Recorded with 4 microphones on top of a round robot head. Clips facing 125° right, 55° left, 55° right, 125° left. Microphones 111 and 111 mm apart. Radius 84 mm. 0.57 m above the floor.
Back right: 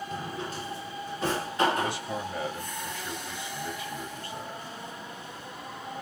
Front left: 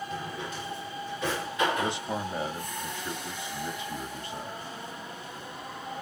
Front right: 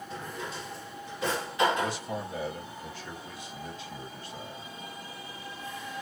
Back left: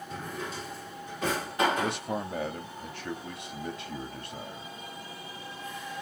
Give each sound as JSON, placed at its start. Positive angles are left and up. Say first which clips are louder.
{"t": 0.1, "sound": "a drawer", "louder": "back right 1 dB, back left 1 dB", "azimuth_deg": 175, "distance_m": 1.9}
{"t": 1.8, "sound": "a man speaking", "louder": "front left 1 dB, back left 1 dB", "azimuth_deg": 120, "distance_m": 1.4}